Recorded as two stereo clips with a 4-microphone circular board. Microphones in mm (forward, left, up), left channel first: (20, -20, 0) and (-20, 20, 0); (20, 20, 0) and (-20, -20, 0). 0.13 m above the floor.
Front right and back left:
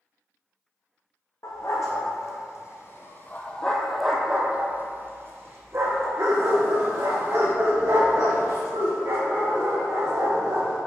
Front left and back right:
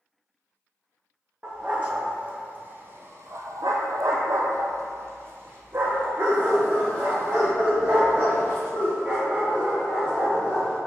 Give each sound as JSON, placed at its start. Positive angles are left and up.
{"t": 1.4, "sound": "a dog barking", "azimuth_deg": -65, "distance_m": 2.0}